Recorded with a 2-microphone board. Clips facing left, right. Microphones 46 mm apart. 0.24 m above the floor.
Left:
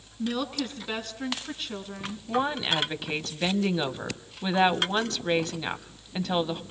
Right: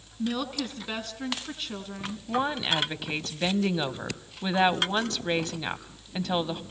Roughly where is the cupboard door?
No cupboard door in this recording.